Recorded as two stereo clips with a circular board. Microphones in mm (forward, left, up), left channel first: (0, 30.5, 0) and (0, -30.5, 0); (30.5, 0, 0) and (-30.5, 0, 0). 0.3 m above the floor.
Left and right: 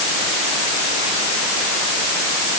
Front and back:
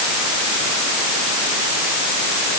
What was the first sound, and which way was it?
Only background noise.